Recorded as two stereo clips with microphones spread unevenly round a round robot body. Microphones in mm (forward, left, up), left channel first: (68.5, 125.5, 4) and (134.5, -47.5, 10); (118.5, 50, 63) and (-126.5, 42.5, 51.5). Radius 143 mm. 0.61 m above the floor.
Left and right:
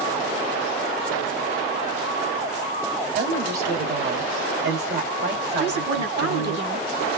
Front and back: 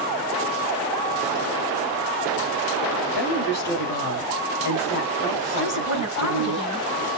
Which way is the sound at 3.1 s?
45° right.